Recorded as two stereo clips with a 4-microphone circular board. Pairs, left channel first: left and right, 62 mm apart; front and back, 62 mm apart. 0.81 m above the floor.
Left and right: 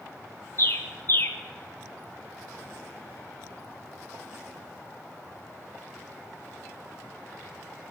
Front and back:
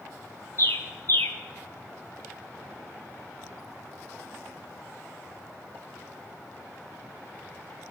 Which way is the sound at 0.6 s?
45° left.